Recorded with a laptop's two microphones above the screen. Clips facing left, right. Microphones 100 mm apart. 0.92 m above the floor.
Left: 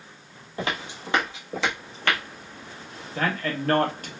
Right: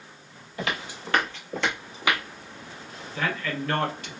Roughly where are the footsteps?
Left.